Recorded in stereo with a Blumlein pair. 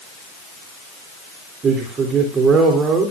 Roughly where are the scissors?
I don't hear scissors.